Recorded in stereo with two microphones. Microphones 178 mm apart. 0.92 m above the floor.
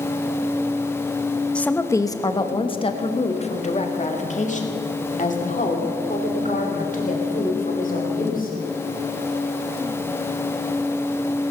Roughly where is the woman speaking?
Centre.